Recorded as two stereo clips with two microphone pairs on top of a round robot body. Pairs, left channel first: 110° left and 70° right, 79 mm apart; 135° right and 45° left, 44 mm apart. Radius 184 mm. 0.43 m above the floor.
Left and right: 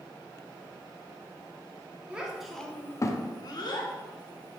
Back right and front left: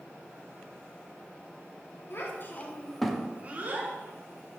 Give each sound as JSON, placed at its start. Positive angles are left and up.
{"t": 2.1, "sound": "a child speaking", "azimuth_deg": -140, "distance_m": 0.7}